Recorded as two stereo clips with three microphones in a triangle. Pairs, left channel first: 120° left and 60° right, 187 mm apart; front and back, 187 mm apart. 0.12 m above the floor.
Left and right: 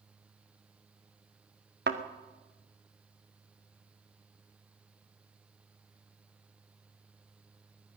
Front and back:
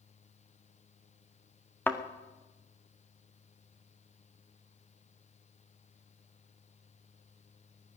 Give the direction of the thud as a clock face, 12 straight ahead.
3 o'clock.